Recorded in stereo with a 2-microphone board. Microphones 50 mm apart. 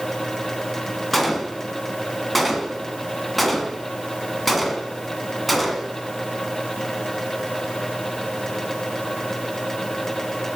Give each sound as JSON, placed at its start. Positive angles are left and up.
{"t": 1.1, "sound": "a gunshot", "side_deg": 5, "distance_m": 1.3}